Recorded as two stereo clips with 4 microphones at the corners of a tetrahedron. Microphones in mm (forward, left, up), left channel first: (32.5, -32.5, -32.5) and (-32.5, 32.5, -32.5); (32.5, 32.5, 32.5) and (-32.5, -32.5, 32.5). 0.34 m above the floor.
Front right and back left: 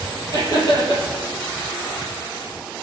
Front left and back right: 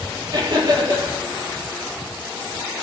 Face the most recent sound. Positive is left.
turn(degrees=-90)